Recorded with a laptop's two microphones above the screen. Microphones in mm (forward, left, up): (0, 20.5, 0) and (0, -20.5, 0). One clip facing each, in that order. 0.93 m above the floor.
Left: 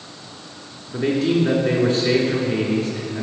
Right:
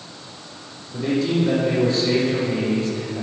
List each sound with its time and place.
0.9 s a man speaking: 55° left (ahead or behind), 2 m